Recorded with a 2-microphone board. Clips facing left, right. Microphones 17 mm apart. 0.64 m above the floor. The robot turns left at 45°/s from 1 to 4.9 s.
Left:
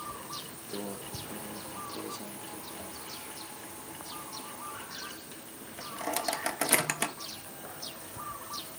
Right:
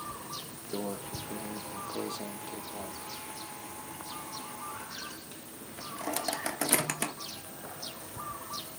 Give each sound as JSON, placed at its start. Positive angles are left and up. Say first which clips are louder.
{"t": 0.7, "sound": "a microwave", "louder": "right 3 dB", "side_deg": -15, "distance_m": 0.7}